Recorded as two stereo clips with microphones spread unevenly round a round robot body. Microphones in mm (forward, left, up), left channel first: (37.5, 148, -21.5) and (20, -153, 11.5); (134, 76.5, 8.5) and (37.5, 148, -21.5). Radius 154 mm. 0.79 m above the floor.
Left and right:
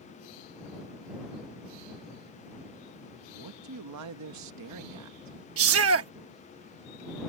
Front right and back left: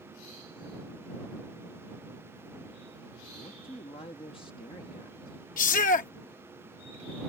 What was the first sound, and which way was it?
A man speaking, 100° right.